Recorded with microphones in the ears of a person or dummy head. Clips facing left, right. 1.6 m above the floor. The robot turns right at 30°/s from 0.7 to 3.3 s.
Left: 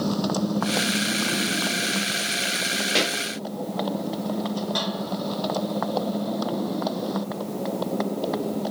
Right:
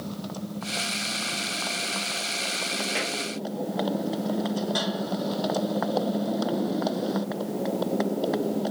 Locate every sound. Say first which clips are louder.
0.0 s a motorcycle: left 10 dB; 110° left; by 8.7 s 170° right
3.0 s a pop: left 9 dB; 50° left (ahead or behind); by 3.2 s 60° left (ahead or behind)